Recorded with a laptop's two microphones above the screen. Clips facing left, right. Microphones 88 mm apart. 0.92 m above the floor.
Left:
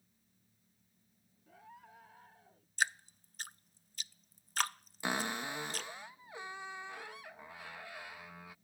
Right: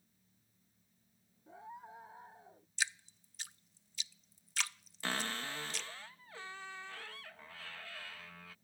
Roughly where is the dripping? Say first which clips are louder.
Left 5 dB; left.